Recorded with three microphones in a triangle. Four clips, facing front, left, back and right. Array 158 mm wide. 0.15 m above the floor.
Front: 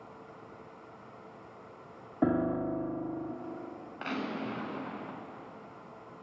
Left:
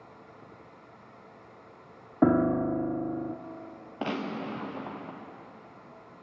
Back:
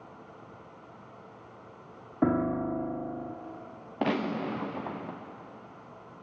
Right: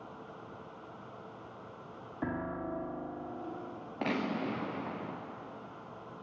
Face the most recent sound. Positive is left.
turn(degrees=170)